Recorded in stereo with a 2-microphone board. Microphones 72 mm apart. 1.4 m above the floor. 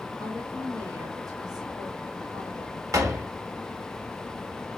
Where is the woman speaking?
55° right (ahead or behind), 2.5 m.